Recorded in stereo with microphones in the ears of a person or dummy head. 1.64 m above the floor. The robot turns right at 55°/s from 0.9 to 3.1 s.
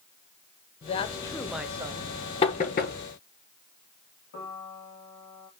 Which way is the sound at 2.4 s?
25° left (ahead or behind).